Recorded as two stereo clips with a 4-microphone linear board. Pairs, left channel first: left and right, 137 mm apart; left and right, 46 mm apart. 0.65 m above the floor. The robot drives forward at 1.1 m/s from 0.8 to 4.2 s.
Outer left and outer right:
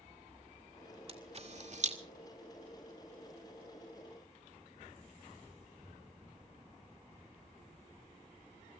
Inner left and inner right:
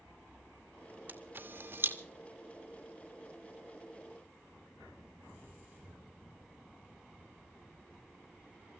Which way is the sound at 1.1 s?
45° right (ahead or behind).